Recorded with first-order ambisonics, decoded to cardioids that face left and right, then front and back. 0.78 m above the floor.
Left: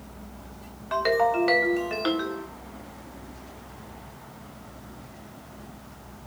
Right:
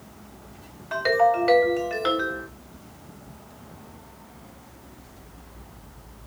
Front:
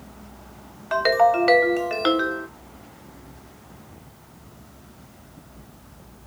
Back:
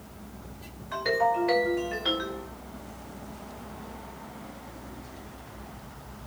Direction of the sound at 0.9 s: 5° left.